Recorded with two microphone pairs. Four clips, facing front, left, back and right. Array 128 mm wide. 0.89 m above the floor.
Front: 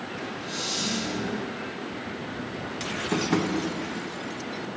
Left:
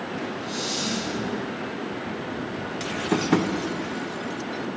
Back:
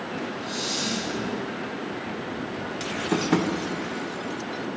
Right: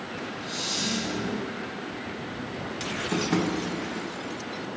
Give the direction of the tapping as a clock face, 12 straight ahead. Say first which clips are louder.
Left 4 dB, back 2 dB; 8 o'clock.